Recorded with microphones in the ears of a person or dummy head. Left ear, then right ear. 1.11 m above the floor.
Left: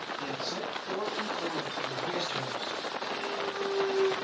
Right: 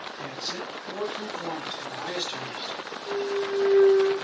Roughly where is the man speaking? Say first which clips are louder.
Right 3 dB; right.